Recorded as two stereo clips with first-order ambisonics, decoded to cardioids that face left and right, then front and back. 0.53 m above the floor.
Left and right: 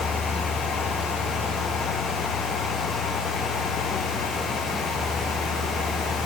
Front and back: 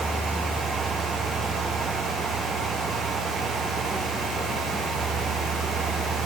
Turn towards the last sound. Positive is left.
No sound to turn to.